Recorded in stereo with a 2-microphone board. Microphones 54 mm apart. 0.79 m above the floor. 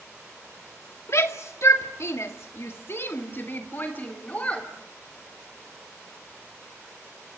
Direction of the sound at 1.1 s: 60° left (ahead or behind).